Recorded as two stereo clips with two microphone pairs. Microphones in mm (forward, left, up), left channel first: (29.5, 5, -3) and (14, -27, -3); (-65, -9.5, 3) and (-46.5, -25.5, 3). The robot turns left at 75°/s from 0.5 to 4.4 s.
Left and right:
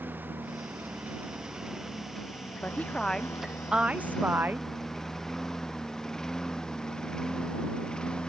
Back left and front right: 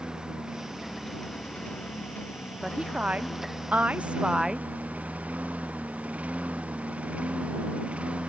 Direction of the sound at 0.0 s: 95° right.